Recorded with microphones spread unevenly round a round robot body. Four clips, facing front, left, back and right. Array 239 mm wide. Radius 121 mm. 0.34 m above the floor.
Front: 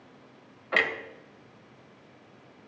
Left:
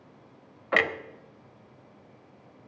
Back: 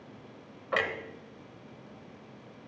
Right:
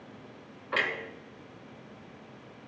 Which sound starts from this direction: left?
A clunk, at 0.7 s.